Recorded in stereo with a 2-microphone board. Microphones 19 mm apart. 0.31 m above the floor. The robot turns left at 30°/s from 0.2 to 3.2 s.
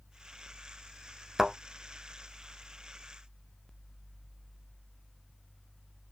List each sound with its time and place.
1.4 s a thud: 30° right (ahead or behind), 1.4 m; by 1.6 s 25° right (ahead or behind), 1.4 m